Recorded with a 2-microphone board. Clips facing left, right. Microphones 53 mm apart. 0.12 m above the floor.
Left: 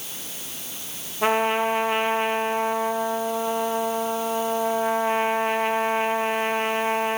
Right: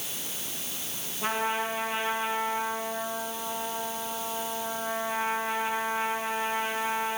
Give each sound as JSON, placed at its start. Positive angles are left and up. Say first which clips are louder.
{"t": 1.2, "sound": "a trumpet", "louder": "left 8 dB", "side_deg": 65, "distance_m": 2.5}